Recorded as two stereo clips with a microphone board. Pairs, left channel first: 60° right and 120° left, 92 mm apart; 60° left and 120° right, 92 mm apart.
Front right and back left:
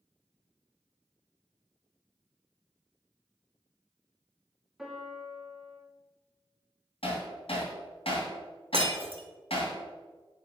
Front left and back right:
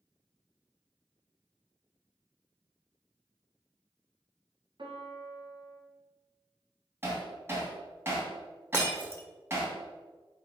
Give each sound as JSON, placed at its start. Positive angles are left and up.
{"t": 4.8, "sound": "a piano", "azimuth_deg": -155, "distance_m": 1.6}
{"t": 7.0, "sound": "hammering", "azimuth_deg": -55, "distance_m": 2.5}
{"t": 8.7, "sound": "breaking glass", "azimuth_deg": 130, "distance_m": 1.4}